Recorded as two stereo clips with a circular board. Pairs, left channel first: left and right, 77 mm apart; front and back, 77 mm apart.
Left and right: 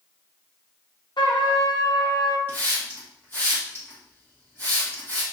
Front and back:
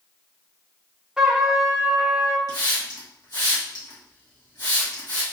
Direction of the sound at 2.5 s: 25° left.